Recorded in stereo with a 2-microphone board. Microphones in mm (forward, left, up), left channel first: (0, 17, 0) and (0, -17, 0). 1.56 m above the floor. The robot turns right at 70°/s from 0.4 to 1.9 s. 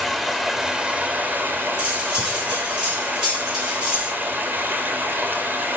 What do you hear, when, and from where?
0.0 s running water: straight behind, 3 m; by 5.8 s 75° right, 3 m
1.8 s cutlery clinking: 30° right (ahead or behind), 7 m; by 4.1 s 20° right (ahead or behind), 7 m